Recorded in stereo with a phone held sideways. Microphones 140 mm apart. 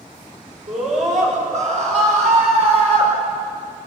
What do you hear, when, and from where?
0.7 s a scream: 65° right (ahead or behind), 6 m; by 3.1 s 45° right (ahead or behind), 6.5 m